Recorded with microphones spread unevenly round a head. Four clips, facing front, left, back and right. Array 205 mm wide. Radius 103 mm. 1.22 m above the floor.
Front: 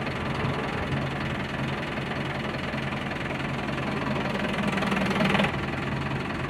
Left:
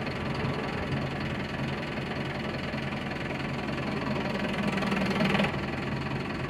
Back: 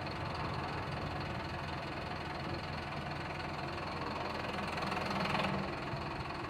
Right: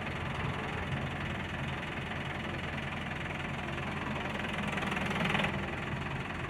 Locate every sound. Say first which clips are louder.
0.0 s an engine running: left 6 dB, front 10 dB; 25° left, 0.8 m